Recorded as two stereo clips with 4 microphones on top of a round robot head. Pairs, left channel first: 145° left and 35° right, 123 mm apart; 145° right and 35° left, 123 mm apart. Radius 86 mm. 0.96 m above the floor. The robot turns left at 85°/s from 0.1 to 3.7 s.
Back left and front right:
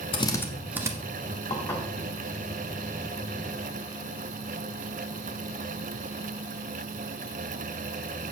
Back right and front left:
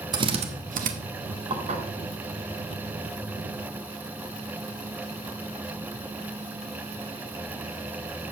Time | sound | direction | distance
0.1 | a drill | 95° left | 1.2 m
1.5 | dishes clattering | 90° left | 1.5 m